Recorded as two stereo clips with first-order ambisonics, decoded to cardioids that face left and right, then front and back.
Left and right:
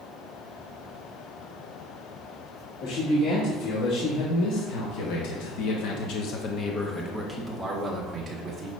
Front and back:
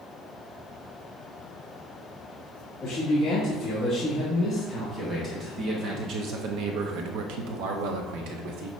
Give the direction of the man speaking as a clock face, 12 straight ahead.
9 o'clock.